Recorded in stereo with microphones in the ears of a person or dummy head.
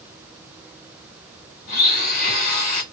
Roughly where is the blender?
Left.